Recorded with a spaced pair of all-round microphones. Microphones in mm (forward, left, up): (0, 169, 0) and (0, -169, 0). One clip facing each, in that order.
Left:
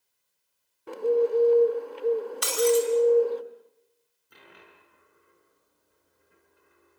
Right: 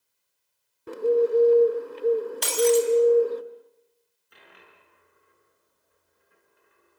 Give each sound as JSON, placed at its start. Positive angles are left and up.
{"t": 0.9, "sound": "a bird", "side_deg": -25, "distance_m": 1.3}
{"t": 2.4, "sound": "breaking glass", "side_deg": 15, "distance_m": 4.0}
{"t": 4.3, "sound": "a dropped coin", "side_deg": 50, "distance_m": 5.5}